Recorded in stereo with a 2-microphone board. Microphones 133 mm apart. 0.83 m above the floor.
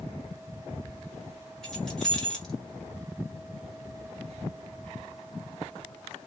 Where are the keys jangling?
5° left (ahead or behind), 1.3 m.